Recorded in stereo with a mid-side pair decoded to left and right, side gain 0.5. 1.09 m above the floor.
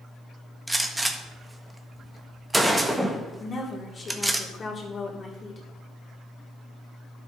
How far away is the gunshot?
About 1.4 m.